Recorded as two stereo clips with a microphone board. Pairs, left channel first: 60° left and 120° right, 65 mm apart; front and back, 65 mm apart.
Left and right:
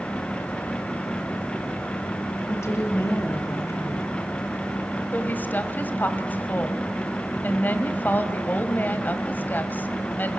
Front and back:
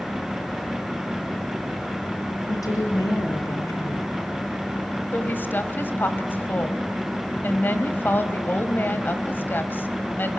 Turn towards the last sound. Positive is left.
turn(degrees=25)